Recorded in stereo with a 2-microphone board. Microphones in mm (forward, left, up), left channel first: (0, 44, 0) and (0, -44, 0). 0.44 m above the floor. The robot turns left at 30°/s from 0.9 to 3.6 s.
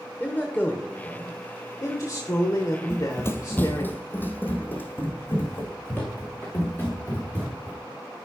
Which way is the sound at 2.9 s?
35° left (ahead or behind).